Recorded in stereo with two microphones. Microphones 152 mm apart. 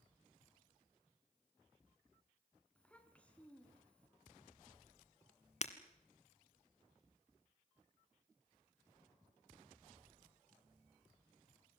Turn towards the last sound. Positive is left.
turn(degrees=45)  # may be behind; listen again after turning